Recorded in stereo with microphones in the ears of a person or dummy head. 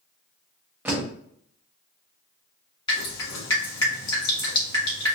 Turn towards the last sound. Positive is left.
turn(degrees=25)  # may be behind; listen again after turning